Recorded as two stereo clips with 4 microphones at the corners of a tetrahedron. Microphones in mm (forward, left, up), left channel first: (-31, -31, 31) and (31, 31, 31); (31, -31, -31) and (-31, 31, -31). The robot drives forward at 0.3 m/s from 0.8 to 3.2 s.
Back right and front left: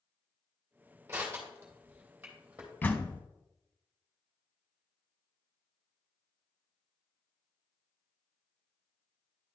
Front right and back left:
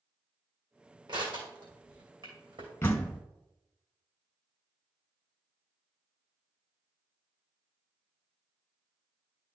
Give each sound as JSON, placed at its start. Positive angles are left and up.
{"t": 1.1, "sound": "crushing", "azimuth_deg": 110, "distance_m": 2.5}
{"t": 2.8, "sound": "a door slam", "azimuth_deg": -80, "distance_m": 0.8}